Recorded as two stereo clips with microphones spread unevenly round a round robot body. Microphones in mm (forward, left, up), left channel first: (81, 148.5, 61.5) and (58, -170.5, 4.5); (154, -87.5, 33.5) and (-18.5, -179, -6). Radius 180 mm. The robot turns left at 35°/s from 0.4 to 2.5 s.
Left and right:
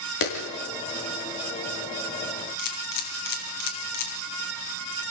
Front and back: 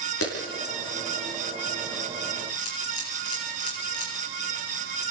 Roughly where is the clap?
Ahead left.